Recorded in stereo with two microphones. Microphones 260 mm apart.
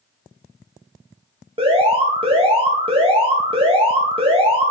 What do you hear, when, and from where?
1.6 s an alarm: 20° right (ahead or behind), 2.5 m